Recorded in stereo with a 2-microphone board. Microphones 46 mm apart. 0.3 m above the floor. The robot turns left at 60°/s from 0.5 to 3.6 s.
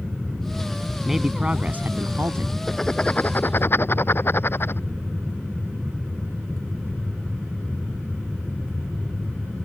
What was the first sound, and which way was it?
A man speaking, straight ahead.